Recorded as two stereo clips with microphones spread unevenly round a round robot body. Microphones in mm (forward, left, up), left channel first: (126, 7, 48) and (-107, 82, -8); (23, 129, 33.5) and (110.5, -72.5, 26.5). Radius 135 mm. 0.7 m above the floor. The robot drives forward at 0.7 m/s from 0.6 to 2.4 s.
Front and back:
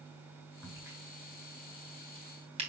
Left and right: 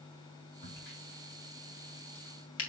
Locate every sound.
0.6 s a crack: 80° left, 4.5 m; by 2.7 s 95° left, 4.5 m